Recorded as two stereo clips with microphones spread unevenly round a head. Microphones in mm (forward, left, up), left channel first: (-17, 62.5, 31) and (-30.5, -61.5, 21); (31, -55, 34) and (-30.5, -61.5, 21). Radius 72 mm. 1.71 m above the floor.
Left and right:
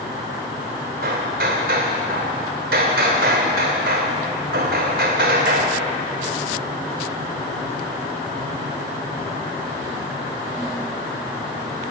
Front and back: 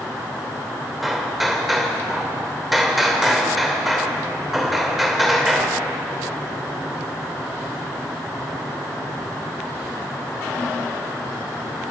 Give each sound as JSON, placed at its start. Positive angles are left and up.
{"t": 1.0, "sound": "hammering", "azimuth_deg": -80, "distance_m": 2.5}